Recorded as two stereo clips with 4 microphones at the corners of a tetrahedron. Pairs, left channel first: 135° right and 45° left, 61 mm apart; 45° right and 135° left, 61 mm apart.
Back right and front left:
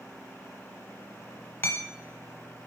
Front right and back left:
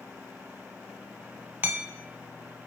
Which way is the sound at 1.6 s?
Straight behind.